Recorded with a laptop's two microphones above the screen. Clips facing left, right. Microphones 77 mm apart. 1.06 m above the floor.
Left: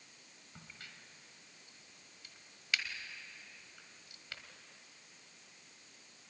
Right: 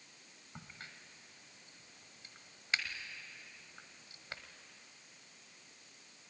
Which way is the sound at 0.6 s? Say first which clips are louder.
Right 3 dB; 35° right (ahead or behind).